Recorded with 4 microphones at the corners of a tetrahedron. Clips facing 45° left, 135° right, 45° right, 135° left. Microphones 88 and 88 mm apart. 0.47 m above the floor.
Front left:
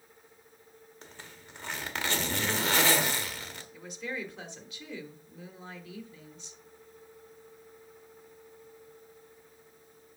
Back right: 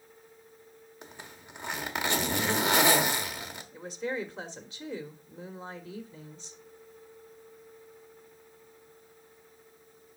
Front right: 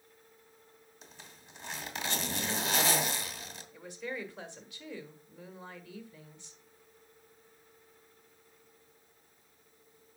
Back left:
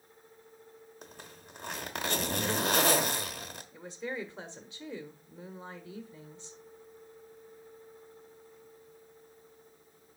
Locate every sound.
1.0 s a zipper: 155° left, 1.1 m
3.7 s a woman speaking: 175° right, 1.2 m